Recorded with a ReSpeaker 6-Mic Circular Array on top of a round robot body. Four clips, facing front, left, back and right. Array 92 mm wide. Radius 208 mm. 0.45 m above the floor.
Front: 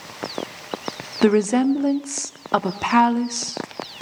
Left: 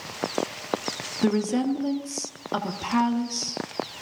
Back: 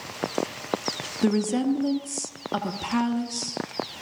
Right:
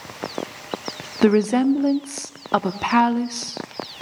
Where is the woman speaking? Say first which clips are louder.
Right 7 dB, front 7 dB; 45° right, 1.3 m.